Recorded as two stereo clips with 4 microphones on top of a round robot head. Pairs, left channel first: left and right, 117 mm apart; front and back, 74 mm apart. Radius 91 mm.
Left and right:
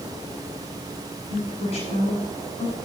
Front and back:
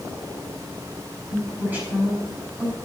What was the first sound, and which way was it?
A woman speaking, 115° left.